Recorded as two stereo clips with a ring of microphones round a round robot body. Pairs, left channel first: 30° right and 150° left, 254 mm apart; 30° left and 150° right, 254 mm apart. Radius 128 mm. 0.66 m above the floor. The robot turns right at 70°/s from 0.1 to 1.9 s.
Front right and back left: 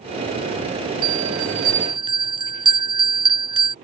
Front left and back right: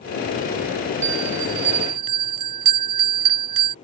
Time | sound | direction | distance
1.0 | a bell | 160° left | ?